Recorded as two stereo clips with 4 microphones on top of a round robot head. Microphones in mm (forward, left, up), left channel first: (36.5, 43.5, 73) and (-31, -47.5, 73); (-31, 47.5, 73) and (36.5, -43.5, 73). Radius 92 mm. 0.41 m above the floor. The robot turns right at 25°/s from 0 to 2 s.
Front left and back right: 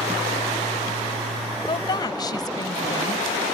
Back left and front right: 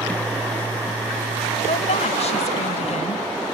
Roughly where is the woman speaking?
Left.